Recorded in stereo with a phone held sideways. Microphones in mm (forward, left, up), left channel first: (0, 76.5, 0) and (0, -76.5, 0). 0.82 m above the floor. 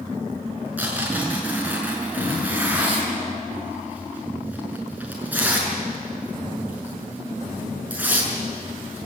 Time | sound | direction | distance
0.8 | tearing paper | 10° right (ahead or behind) | 6 m